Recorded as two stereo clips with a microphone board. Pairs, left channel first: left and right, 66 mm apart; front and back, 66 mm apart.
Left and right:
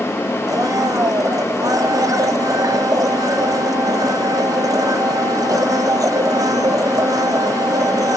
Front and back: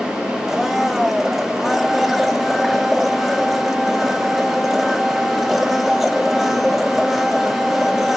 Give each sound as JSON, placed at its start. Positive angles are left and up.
{"t": 0.5, "sound": "a blender", "azimuth_deg": -95, "distance_m": 0.9}